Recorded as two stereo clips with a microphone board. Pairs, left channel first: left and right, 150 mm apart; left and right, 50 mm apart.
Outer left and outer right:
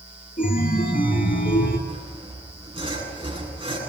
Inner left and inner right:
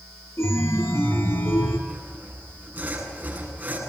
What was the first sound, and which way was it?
A chime, 65° left (ahead or behind).